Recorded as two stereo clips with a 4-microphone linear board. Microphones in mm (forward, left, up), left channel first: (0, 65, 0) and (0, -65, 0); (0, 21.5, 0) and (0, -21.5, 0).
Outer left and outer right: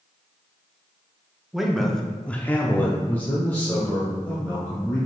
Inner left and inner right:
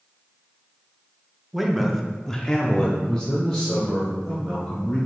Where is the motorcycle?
No motorcycle in this recording.